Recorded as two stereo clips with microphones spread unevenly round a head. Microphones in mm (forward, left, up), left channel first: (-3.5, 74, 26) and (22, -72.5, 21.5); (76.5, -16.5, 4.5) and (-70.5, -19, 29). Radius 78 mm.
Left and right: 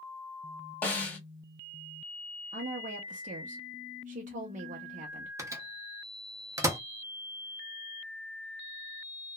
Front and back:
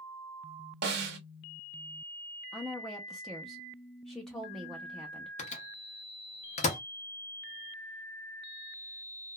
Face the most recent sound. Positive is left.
turn(degrees=-15)